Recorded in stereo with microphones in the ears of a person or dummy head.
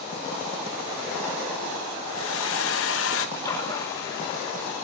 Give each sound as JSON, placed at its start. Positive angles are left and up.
{"t": 2.0, "sound": "a hair dryer", "side_deg": 65, "distance_m": 1.0}
{"t": 3.4, "sound": "a splash", "side_deg": 20, "distance_m": 2.0}